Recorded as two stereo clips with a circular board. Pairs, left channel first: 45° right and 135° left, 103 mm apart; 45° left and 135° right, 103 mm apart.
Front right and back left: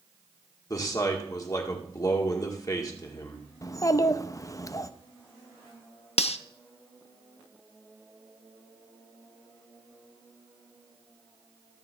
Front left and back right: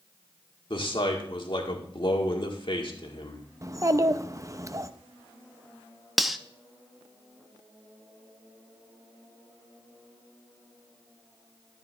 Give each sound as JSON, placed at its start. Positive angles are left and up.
{"t": 0.7, "sound": "a man speaking", "azimuth_deg": 10, "distance_m": 1.8}
{"t": 3.6, "sound": "a child speaking", "azimuth_deg": -90, "distance_m": 0.5}
{"t": 6.2, "sound": "cutlery clinking", "azimuth_deg": -45, "distance_m": 0.5}